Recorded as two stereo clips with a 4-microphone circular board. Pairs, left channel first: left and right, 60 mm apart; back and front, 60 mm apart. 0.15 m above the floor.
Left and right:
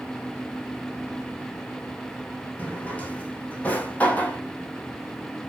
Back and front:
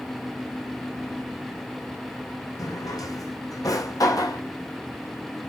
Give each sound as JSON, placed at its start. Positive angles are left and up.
{"t": 2.6, "sound": "a drawer", "azimuth_deg": 155, "distance_m": 2.5}